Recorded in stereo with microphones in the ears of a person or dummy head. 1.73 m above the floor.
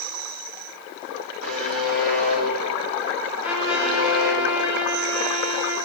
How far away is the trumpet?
About 2.5 m.